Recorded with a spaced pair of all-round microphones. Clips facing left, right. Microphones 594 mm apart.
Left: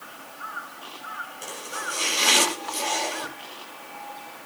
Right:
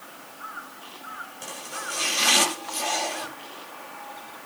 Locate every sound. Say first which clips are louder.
1.4 s chopping: left 2 dB; 20° right (ahead or behind), 8 m